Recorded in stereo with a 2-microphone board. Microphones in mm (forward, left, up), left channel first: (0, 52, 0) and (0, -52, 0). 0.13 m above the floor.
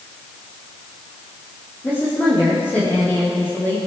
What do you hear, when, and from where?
1.8 s a woman speaking: 20° left (ahead or behind), 5.5 m